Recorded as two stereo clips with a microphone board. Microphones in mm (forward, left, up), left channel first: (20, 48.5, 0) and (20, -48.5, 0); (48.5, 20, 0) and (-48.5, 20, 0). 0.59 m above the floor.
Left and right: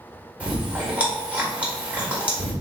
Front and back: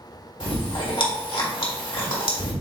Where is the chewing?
15° right, 1.6 m.